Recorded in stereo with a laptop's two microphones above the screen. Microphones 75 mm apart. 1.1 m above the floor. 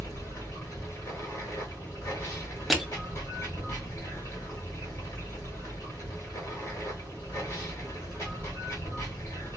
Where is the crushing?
Centre (ahead or behind), 0.8 m.